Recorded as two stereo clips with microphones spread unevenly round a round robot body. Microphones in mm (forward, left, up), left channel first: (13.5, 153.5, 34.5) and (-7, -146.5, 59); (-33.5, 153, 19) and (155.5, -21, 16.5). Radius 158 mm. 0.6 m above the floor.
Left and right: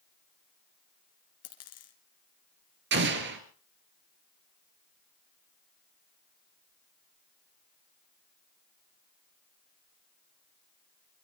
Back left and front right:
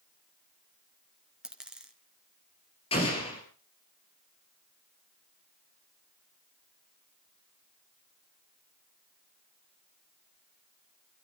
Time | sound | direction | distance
1.4 | a dropped coin | 45° left | 2.5 m
2.9 | an explosion | 150° right | 2 m